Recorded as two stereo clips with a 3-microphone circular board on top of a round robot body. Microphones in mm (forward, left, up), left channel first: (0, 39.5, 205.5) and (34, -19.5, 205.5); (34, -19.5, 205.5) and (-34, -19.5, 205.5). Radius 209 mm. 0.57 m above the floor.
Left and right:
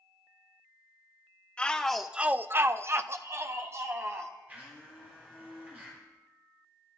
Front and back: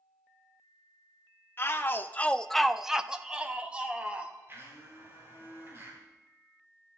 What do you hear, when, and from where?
1.6 s a shout: 50° left, 1.2 m; by 4.3 s 110° right, 3 m
4.5 s a blender: 125° right, 8 m